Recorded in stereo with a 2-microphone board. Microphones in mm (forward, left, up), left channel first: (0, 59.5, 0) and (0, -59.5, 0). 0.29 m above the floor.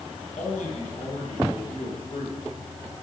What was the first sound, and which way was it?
A man speaking, 75° left (ahead or behind).